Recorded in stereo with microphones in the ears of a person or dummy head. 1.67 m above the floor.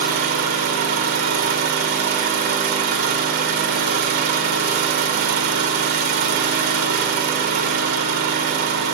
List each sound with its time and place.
0.0 s an engine running: 35° right (ahead or behind), 1.2 m